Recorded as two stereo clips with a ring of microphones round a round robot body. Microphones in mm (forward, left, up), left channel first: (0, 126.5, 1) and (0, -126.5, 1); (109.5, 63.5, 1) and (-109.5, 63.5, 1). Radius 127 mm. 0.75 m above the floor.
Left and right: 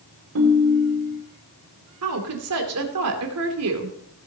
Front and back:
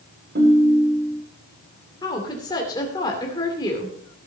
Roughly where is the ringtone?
Behind right.